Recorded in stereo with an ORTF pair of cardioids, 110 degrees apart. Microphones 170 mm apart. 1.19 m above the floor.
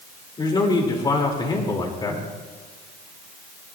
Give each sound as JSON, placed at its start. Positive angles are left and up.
{"t": 0.4, "sound": "a man speaking", "azimuth_deg": 25, "distance_m": 2.5}